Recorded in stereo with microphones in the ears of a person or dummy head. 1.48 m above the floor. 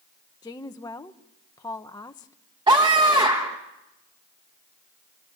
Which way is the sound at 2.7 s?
15° right (ahead or behind).